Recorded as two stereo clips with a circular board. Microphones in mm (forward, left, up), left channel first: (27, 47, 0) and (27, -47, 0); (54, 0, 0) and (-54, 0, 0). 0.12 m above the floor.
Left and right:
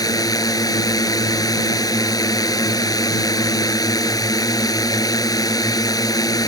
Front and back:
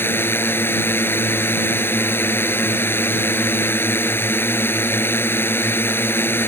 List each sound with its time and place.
0.0 s a drone: 65° left